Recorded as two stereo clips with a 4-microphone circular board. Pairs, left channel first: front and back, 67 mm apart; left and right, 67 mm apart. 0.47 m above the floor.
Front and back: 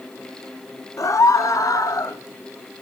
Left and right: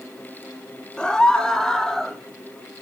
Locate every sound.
1.0 s a scream: 15° left, 2 m; by 2.2 s 10° left, 3 m